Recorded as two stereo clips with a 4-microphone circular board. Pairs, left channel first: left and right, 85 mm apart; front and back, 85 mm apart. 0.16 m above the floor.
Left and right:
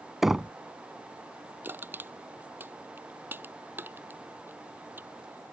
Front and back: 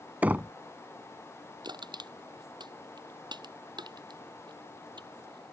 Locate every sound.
0.2 s knocking: 170° right
1.6 s crushing: 155° right